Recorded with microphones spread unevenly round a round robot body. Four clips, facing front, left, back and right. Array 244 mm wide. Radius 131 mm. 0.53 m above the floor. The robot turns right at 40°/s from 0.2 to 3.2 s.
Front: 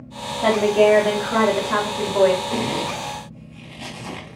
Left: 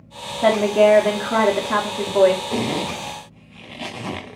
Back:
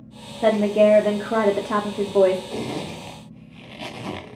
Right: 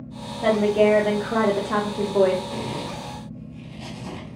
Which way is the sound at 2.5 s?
55° left.